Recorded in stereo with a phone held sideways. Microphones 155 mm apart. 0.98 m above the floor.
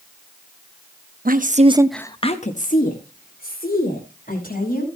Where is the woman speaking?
70° right (ahead or behind), 1.1 m; by 4.9 s 75° left (ahead or behind), 4.5 m.